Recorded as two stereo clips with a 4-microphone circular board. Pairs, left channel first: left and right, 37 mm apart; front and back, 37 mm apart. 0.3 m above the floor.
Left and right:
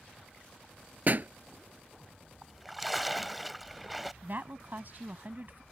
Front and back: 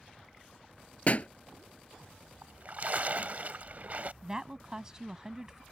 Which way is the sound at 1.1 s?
45° right.